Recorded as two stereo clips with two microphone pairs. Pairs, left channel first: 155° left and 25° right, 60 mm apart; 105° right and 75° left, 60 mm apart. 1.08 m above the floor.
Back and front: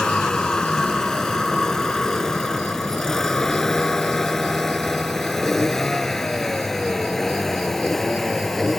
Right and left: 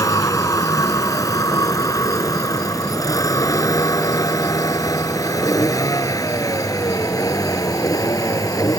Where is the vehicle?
125° right; by 8.8 s 120° right.